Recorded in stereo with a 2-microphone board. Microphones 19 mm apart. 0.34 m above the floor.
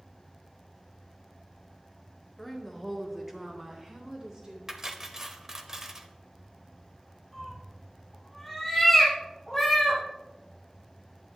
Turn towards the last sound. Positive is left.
turn(degrees=0)  # may be behind; listen again after turning